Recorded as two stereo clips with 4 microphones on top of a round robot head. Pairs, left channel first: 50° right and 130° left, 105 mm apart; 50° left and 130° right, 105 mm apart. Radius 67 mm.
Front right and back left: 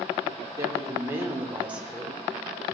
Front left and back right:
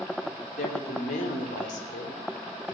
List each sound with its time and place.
0.6 s a woman speaking: 70° left, 3 m; by 2.8 s 40° left, 4.5 m